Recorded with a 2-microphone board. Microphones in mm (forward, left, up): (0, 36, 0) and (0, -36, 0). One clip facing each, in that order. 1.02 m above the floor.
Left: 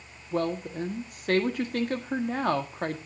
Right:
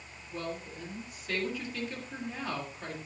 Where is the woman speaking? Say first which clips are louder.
Left 10 dB; 65° left (ahead or behind), 1.7 m.